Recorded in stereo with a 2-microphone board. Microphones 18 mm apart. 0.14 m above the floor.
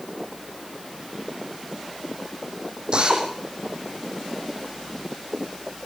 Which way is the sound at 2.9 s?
45° right (ahead or behind).